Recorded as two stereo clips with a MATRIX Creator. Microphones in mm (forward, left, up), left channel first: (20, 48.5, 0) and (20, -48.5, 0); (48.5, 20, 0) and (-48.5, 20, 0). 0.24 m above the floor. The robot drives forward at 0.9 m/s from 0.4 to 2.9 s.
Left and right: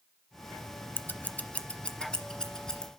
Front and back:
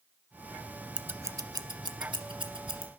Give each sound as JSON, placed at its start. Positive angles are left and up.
{"t": 1.0, "sound": "scissors", "azimuth_deg": 115, "distance_m": 0.5}